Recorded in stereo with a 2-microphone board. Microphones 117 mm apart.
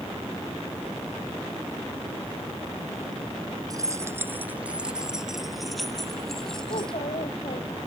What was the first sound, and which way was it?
Keys jangling, 35° right (ahead or behind).